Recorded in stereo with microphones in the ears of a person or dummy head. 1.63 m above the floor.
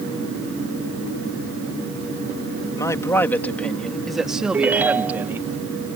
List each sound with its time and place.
2.8 s a man speaking: 20° left (ahead or behind); by 5.5 s 15° right (ahead or behind)
4.5 s a ringtone: 10° right (ahead or behind)